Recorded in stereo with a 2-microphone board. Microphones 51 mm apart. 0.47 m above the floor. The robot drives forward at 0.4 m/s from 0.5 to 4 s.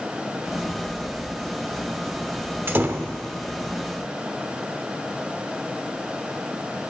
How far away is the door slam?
About 0.9 m.